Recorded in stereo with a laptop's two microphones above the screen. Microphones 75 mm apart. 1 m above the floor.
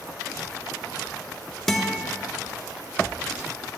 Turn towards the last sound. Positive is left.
turn(degrees=5)  # may be behind; listen again after turning